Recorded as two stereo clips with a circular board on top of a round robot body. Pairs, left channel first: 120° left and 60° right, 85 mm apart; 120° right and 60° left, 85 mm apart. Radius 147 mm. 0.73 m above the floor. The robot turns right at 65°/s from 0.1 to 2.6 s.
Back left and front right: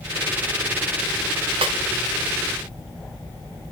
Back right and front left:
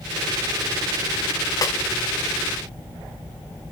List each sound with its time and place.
1.6 s a snare drum: 70° right, 1.4 m; by 1.8 s 60° right, 1.4 m